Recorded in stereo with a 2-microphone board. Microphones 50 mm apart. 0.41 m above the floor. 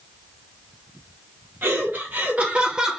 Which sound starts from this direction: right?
Laughter, at 1.6 s.